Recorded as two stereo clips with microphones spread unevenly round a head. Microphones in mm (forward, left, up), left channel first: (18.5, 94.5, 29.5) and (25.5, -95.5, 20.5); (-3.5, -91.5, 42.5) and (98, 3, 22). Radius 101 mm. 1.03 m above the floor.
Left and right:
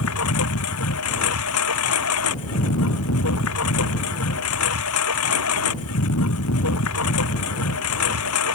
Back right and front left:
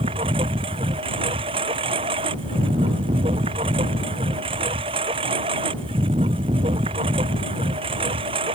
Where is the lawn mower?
105° left.